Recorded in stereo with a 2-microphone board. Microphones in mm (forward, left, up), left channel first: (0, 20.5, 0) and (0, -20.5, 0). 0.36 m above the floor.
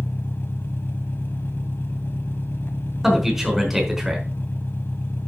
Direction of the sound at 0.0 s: 75° left (ahead or behind).